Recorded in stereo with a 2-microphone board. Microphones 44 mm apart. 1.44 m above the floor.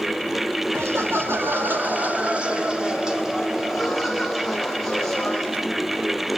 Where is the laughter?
75° right (ahead or behind), 3 m; by 5.5 s 10° left (ahead or behind), 7 m.